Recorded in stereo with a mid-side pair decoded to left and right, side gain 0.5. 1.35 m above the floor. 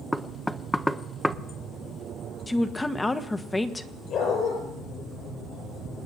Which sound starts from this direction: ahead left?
A dog barking, at 4.1 s.